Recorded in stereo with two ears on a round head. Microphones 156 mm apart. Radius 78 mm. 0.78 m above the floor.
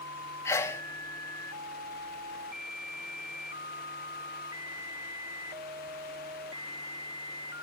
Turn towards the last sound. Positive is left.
turn(degrees=15)  # may be behind; listen again after turning